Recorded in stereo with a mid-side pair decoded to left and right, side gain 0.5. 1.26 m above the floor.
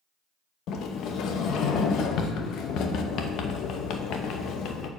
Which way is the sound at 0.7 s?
70° left.